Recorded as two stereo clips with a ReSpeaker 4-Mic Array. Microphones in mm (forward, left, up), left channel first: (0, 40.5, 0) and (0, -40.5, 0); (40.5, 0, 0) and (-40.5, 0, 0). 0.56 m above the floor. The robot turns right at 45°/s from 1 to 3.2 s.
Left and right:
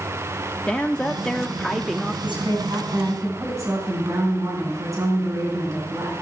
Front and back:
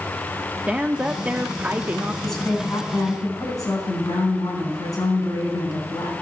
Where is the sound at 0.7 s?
145° left, 0.6 m; by 2.1 s 165° right, 0.6 m.